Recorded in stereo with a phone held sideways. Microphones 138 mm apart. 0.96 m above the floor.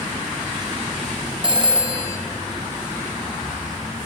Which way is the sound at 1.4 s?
35° right (ahead or behind).